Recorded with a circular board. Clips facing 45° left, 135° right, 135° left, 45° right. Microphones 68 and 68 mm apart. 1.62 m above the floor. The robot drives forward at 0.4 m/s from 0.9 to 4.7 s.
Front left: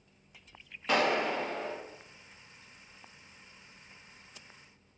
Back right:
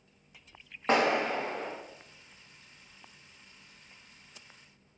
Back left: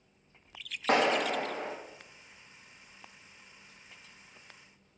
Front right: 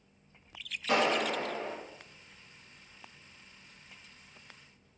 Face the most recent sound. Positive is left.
turn(degrees=175)